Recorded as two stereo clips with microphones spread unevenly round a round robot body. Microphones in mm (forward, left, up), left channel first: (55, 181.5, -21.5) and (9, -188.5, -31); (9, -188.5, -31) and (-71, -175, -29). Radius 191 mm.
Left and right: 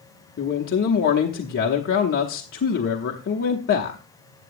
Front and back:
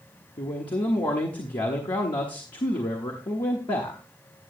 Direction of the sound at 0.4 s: 25° left.